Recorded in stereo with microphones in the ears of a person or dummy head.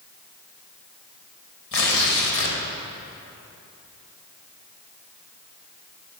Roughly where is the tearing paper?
Left.